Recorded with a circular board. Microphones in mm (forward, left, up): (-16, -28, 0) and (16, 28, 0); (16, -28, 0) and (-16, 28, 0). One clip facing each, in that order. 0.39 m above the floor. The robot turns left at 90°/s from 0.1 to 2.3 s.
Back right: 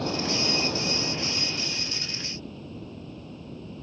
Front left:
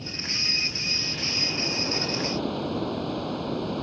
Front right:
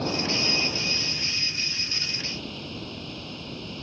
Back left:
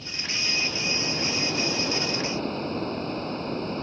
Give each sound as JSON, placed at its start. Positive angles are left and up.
{"t": 0.0, "sound": "running water", "azimuth_deg": -95}